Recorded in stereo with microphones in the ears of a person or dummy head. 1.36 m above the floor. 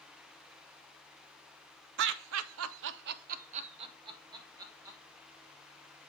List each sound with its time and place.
2.0 s laughter: 65° right (ahead or behind), 0.6 m; by 5.0 s 15° right (ahead or behind), 1.3 m